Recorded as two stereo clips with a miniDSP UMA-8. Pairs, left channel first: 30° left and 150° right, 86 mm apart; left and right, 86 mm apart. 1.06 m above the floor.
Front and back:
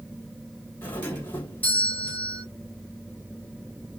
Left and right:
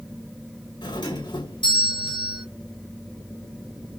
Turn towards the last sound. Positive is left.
turn(degrees=95)